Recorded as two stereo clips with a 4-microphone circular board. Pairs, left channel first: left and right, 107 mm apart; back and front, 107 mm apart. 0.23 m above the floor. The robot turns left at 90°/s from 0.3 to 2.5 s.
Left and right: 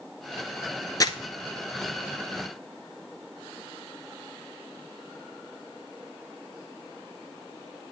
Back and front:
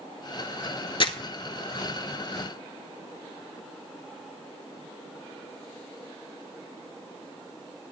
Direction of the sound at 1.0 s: 145° left.